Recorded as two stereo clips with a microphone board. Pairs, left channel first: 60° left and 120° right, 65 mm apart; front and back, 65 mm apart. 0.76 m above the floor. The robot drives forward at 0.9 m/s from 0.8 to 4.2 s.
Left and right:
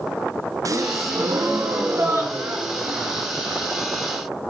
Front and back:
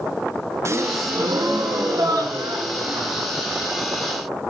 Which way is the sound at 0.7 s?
140° right.